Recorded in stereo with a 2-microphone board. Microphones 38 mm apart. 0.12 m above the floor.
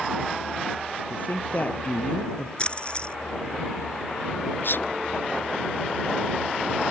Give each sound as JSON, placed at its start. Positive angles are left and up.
{"t": 1.1, "sound": "a woman speaking", "side_deg": 55}
{"t": 2.6, "sound": "a splash", "side_deg": 30}
{"t": 4.6, "sound": "a sneeze", "side_deg": 65}